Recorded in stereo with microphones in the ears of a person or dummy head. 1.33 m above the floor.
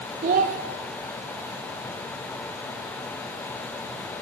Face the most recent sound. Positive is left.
turn(degrees=-40)  # may be behind; listen again after turning